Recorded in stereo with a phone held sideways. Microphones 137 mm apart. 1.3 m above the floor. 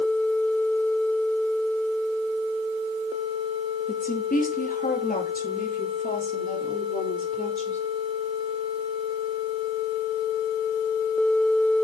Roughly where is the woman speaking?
Left.